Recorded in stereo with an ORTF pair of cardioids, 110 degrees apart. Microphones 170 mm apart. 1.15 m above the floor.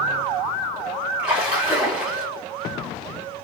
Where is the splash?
5° right, 3 m.